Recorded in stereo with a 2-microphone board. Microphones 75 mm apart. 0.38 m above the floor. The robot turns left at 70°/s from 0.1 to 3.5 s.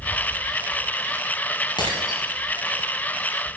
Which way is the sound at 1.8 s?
75° left (ahead or behind).